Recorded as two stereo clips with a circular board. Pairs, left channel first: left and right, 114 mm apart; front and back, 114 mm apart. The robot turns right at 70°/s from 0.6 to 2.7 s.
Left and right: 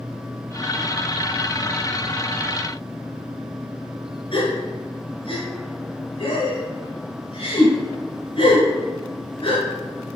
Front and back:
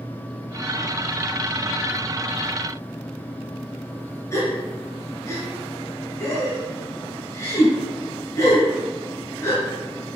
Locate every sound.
4.3 s a gasp: 60° left, 2.5 m